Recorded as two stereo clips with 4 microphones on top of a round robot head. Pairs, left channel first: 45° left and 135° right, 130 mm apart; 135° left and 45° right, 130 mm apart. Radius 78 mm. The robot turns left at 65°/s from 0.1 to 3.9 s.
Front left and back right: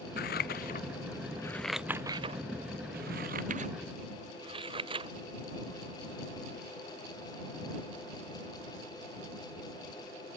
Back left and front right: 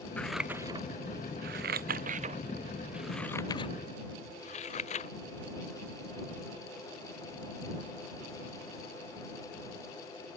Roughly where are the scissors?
Ahead left.